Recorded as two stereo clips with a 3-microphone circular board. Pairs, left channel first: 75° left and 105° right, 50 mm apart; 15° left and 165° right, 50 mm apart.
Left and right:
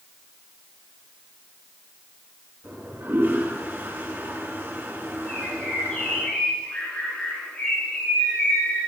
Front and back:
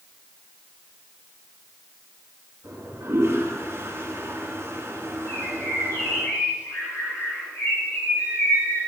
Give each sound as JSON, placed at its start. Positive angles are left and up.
{"t": 2.6, "sound": "a toilet flushing", "azimuth_deg": -135, "distance_m": 6.0}
{"t": 5.3, "sound": "a bird", "azimuth_deg": 5, "distance_m": 9.0}